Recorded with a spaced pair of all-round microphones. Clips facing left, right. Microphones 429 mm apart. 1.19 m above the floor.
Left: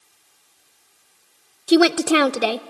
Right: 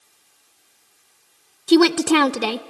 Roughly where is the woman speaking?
Centre.